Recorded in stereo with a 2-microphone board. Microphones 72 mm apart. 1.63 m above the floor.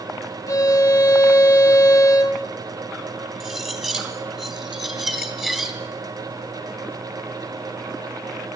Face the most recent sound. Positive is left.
turn(degrees=-5)  # may be behind; listen again after turning